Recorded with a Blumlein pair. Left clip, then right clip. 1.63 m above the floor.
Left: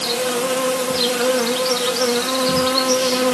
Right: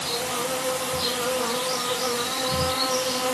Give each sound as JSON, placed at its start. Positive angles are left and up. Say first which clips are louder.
{"t": 0.0, "sound": "an insect", "louder": "left 7 dB", "azimuth_deg": 35, "distance_m": 5.0}